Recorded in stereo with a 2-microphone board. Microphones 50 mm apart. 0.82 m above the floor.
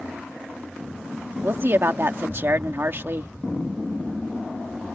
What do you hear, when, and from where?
1.4 s a woman speaking: 50° right (ahead or behind)